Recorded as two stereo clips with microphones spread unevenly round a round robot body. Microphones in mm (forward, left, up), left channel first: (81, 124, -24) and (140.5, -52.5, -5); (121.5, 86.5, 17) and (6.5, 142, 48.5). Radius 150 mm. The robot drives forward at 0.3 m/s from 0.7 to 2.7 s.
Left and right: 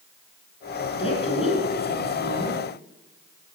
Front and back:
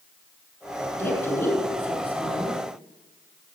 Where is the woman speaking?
50° left, 6 m; by 2.6 s 55° left, 6 m.